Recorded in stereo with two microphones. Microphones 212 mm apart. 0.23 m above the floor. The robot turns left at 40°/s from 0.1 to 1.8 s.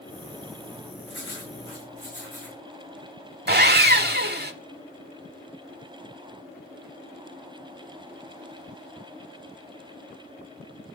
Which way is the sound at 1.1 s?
65° left (ahead or behind).